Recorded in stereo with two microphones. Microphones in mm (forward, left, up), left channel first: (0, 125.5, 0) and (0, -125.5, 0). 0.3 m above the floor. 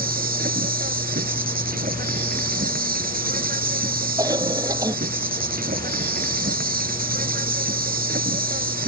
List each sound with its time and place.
0.0 s an insect: 35° right (ahead or behind)
4.2 s a cough: 15° right (ahead or behind)